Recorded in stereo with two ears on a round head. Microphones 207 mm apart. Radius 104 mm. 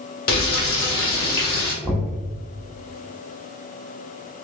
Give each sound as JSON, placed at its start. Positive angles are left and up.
{"t": 0.3, "sound": "frying", "side_deg": 45, "distance_m": 1.3}
{"t": 1.8, "sound": "knocking", "side_deg": -10, "distance_m": 1.2}